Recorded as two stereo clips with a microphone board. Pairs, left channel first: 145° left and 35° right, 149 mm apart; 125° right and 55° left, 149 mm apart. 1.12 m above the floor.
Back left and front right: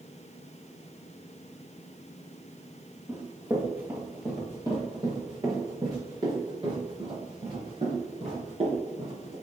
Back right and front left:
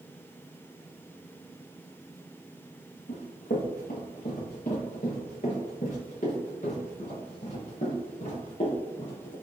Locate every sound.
3.1 s running footsteps: 110° right, 4 m; by 9.3 s 80° right, 7 m